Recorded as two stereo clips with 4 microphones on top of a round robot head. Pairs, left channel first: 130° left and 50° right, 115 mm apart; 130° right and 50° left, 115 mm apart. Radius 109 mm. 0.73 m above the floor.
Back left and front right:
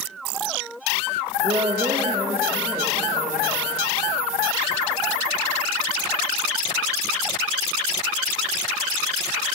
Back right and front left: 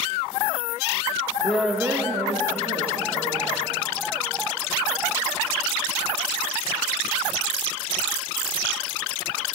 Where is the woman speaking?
50° right, 0.7 m; by 3.8 s 45° left, 1.4 m.